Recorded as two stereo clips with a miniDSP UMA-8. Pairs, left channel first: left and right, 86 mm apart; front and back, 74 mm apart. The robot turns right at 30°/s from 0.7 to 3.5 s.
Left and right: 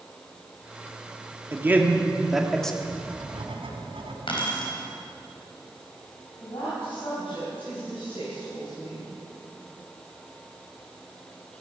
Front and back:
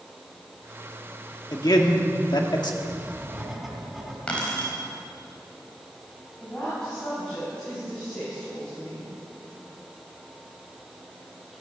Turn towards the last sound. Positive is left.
turn(degrees=80)